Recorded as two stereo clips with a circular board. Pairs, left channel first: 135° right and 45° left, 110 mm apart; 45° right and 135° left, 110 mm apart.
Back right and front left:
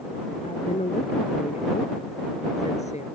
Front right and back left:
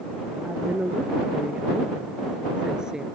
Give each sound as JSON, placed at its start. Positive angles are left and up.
{"t": 0.4, "sound": "a woman speaking", "azimuth_deg": -150}